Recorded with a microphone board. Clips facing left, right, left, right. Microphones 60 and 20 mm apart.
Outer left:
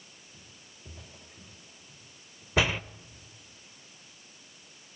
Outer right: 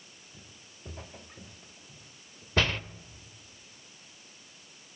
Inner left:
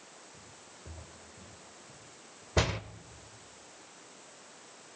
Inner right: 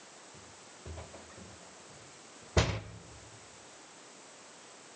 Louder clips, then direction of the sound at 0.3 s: Outer right 1 dB, even; 50° right (ahead or behind).